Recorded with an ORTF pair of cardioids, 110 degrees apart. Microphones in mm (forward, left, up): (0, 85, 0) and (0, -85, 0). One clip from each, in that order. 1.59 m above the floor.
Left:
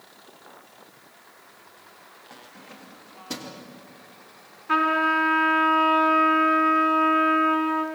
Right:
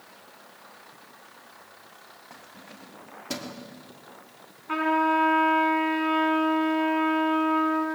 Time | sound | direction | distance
2.3 | keys jangling | 5° right | 2 m
4.7 | a trumpet | 10° left | 7.5 m